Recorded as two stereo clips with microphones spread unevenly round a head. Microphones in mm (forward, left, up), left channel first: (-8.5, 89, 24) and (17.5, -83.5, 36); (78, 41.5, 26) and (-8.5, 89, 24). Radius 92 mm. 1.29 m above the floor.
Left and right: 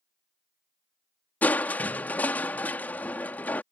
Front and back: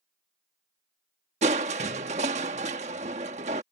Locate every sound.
1.4 s crushing: straight behind